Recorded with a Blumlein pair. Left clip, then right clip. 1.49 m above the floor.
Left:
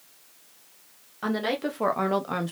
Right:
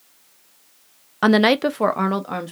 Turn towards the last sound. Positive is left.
turn(degrees=0)